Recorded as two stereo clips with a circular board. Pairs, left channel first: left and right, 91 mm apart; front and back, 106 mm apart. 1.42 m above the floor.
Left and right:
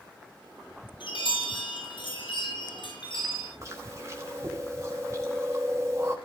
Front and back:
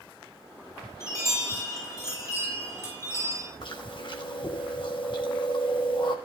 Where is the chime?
65° left, 8 m.